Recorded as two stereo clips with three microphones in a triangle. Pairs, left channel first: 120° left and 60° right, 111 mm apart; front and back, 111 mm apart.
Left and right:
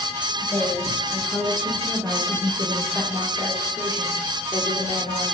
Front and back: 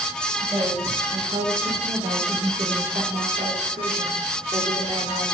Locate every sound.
0.4 s a woman speaking: 125° right, 2.5 m; by 5.2 s 150° left, 2.0 m